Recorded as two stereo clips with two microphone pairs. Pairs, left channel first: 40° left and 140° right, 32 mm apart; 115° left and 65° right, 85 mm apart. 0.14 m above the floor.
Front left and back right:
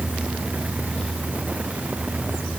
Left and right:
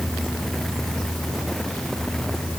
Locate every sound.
Only background noise.